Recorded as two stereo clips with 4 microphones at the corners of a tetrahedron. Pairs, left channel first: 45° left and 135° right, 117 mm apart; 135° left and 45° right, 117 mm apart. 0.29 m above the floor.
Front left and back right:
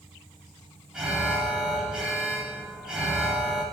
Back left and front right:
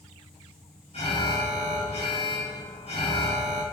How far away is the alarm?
About 2.5 m.